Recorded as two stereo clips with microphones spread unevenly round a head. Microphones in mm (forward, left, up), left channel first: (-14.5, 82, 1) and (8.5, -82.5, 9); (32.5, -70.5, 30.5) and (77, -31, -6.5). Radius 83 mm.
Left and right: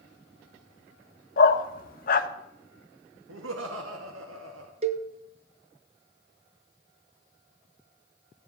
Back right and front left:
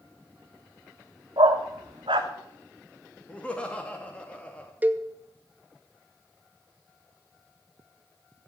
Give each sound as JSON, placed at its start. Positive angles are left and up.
{"t": 1.4, "sound": "a dog barking", "azimuth_deg": 105, "distance_m": 1.2}
{"t": 3.3, "sound": "laughter", "azimuth_deg": -75, "distance_m": 2.5}
{"t": 4.8, "sound": "a cowbell", "azimuth_deg": -30, "distance_m": 1.2}